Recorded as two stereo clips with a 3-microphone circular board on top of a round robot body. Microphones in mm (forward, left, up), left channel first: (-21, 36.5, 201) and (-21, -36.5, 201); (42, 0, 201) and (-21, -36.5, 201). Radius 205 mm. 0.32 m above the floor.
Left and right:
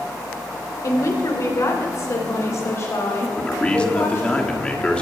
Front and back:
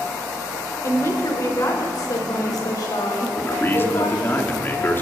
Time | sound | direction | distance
0.8 | a woman speaking | 65° left | 2.5 m
3.4 | a man speaking | 30° left | 1.6 m